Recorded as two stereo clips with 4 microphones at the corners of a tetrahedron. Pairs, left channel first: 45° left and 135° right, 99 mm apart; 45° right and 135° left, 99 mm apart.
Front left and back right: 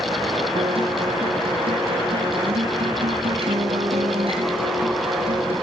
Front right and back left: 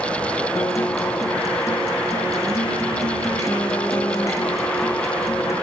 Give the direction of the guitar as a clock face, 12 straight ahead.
3 o'clock.